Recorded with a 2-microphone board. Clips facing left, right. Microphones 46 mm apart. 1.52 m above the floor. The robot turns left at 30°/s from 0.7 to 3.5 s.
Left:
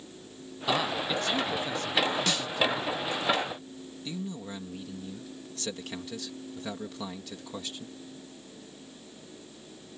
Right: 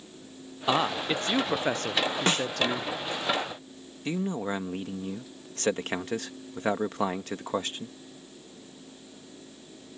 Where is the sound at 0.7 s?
25° right; by 2.9 s 90° right.